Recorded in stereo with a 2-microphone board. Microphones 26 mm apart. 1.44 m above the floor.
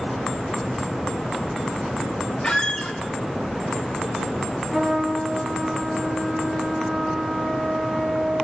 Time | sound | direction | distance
2.4 | a squeak | 30° left (ahead or behind) | 1.8 m
4.7 | a trumpet | 20° right (ahead or behind) | 6 m